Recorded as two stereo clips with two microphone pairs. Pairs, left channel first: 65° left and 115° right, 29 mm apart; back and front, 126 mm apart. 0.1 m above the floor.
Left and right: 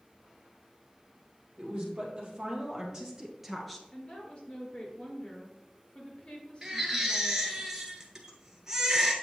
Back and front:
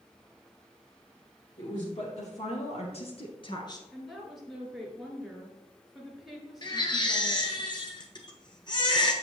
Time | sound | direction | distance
1.6 | a woman speaking | 165° right | 3 m
3.9 | a woman speaking | 90° left | 2 m
6.6 | a baby crying | 170° right | 1.2 m